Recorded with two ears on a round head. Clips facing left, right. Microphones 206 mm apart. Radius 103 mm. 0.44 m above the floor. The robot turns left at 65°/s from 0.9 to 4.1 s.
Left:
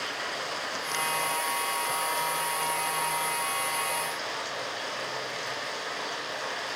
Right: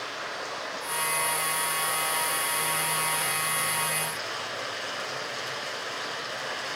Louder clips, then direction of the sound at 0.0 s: Left 1 dB; 35° left.